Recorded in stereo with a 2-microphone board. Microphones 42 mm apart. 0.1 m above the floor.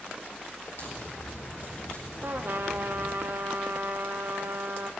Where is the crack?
65° left (ahead or behind), 4.5 m.